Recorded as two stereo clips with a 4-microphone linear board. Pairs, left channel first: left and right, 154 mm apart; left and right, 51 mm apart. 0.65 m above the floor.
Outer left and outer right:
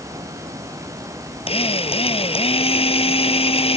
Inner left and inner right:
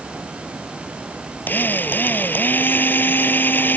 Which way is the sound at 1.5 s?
40° left (ahead or behind).